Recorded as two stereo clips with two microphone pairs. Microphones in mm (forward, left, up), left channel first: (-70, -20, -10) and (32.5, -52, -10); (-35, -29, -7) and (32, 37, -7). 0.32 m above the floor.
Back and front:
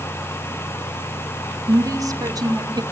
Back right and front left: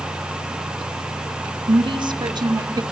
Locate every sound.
1.7 s a woman speaking: 35° left, 3 m; by 2.8 s 15° left, 2.0 m